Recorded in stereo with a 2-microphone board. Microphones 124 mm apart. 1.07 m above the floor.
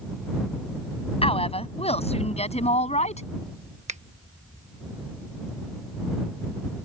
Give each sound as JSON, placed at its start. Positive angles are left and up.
{"t": 1.2, "sound": "a woman speaking", "side_deg": 50}
{"t": 3.9, "sound": "a finger snap", "side_deg": -70}